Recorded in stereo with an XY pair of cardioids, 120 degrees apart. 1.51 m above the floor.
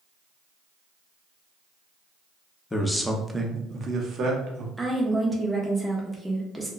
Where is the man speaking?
20° left, 0.7 m; by 4.7 s 60° right, 1.1 m.